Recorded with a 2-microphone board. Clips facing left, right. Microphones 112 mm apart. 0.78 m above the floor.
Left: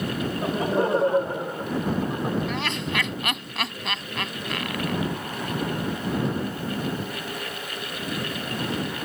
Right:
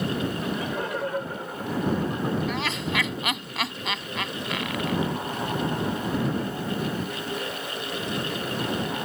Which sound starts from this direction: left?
Laughter, at 0.3 s.